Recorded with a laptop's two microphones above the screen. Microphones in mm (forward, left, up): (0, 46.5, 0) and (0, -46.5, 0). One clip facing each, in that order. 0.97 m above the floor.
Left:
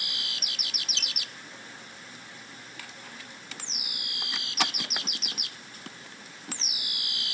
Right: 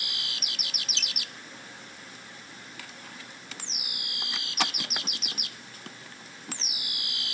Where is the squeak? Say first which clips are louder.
Even; 45° left (ahead or behind), 1.1 m.